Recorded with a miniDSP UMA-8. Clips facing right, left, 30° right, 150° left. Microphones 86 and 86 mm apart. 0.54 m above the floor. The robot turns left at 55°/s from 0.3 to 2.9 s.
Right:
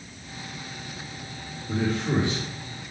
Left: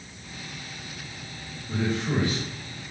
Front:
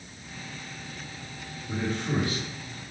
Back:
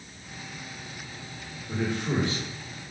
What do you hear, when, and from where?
1.7 s a man speaking: 120° right, 1.8 m; by 2.4 s 155° right, 1.8 m